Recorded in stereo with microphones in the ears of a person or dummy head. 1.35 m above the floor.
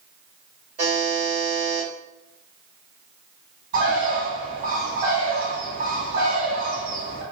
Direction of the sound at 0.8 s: 30° right (ahead or behind).